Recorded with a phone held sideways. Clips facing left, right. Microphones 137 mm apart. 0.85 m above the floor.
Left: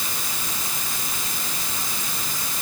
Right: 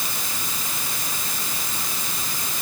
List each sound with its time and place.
Only background noise.